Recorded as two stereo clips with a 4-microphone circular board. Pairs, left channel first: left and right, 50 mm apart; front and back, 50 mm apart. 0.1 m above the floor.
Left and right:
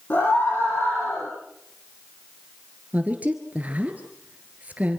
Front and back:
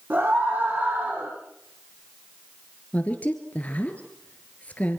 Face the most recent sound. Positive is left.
turn(degrees=-45)